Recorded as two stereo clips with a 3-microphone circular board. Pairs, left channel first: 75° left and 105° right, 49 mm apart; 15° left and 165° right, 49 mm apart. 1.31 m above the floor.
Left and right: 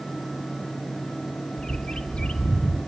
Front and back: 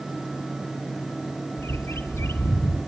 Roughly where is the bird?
Ahead.